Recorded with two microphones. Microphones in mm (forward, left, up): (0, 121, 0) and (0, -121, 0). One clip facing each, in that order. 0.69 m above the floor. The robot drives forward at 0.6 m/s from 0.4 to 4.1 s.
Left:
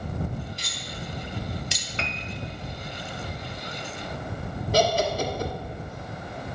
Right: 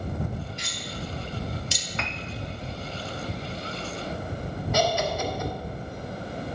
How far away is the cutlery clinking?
About 1.2 m.